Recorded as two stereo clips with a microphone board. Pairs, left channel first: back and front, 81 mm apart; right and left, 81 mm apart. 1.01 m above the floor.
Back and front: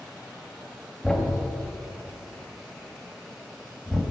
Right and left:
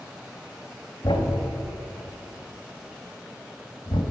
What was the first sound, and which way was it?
A thud, 100° right.